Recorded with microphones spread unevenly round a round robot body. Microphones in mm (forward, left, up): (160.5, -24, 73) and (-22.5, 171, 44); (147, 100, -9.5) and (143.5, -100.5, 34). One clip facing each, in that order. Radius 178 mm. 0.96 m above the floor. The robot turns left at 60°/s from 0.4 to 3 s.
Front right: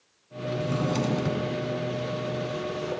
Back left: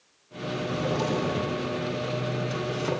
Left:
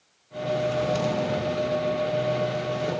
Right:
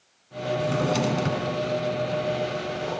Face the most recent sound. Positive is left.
turn(degrees=155)